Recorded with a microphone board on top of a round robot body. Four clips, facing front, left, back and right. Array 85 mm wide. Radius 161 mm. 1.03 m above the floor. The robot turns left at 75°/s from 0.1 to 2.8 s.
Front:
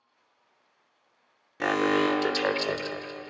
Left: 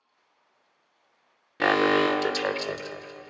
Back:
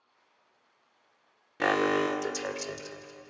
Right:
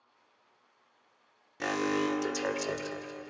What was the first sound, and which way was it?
An alarm, 100° left.